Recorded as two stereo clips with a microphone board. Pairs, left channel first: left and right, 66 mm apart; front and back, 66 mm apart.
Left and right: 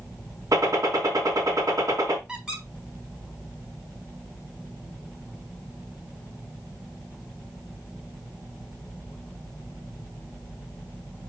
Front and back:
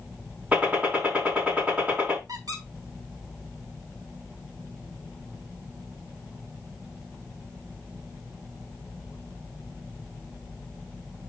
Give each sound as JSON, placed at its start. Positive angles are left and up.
{"t": 0.5, "sound": "a gunshot", "azimuth_deg": -115, "distance_m": 4.0}
{"t": 2.3, "sound": "a squeak", "azimuth_deg": -170, "distance_m": 4.0}